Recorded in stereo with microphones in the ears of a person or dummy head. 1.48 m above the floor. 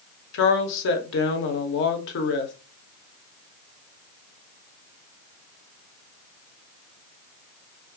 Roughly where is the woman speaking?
Left.